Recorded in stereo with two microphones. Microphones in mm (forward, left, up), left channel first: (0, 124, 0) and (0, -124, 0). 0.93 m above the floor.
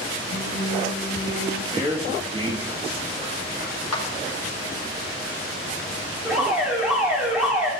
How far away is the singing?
About 6 m.